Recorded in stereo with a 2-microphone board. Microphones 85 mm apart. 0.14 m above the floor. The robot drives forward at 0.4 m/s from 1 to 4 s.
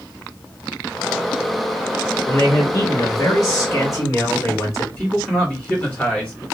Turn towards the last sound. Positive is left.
turn(degrees=20)  # may be behind; listen again after turning